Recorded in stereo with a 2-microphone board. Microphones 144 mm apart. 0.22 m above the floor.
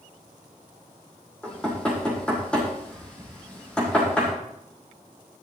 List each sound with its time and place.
1.4 s knocking: 5° left (ahead or behind), 6.5 m